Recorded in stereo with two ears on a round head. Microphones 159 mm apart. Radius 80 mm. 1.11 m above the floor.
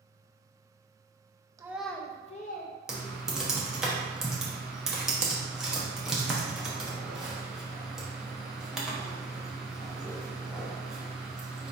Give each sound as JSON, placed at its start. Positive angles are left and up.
{"t": 1.6, "sound": "a child speaking", "side_deg": -15, "distance_m": 0.6}
{"t": 2.9, "sound": "typing on a keyboard", "side_deg": -5, "distance_m": 0.8}